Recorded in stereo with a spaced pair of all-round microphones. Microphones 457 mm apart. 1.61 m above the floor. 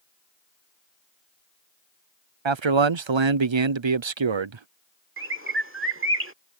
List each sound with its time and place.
2.5 s a man speaking: 80° right
5.2 s a bird: 30° right (ahead or behind)